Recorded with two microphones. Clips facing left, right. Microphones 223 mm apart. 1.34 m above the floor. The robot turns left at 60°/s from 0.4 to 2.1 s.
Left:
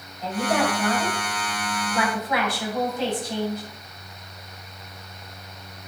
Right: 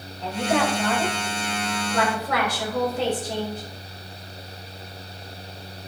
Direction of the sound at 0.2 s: 5° left.